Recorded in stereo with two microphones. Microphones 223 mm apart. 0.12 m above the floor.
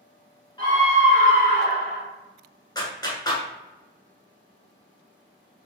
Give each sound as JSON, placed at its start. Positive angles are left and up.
{"t": 0.6, "sound": "a scream", "side_deg": 20, "distance_m": 1.1}
{"t": 2.8, "sound": "a clap", "side_deg": 20, "distance_m": 1.0}